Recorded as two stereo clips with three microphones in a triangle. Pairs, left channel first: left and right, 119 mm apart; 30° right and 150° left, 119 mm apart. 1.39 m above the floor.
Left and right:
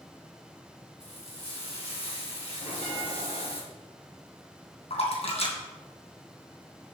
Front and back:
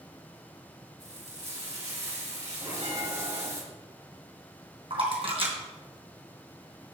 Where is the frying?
125° left, 3.5 m.